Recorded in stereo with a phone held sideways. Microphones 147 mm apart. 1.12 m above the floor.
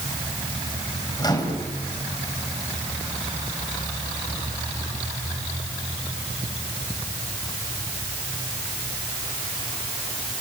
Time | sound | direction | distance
1.2 | a microwave | 30° left (ahead or behind) | 4 m